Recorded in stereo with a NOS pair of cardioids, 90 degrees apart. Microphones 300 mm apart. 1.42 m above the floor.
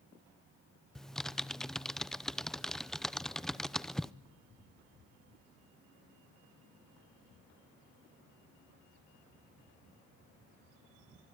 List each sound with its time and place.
0.9 s typing on a keyboard: straight ahead, 0.7 m